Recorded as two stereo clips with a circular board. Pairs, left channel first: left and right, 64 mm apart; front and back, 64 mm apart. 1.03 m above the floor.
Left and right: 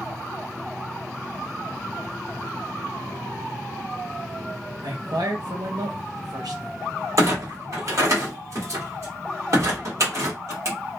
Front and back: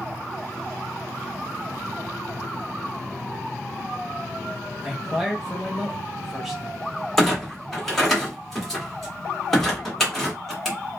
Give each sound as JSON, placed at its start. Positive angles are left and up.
{"t": 4.8, "sound": "a man speaking", "azimuth_deg": -95, "distance_m": 0.7}
{"t": 7.2, "sound": "a clunk", "azimuth_deg": -85, "distance_m": 1.2}